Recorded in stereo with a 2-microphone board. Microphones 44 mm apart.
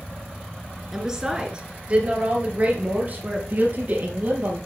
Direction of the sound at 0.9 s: 10° right (ahead or behind).